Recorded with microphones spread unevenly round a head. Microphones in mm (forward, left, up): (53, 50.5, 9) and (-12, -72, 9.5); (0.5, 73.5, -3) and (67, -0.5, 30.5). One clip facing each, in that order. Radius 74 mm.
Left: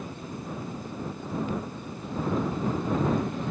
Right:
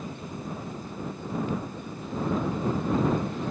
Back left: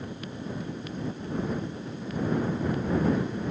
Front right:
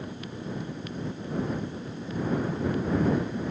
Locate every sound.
Only background noise.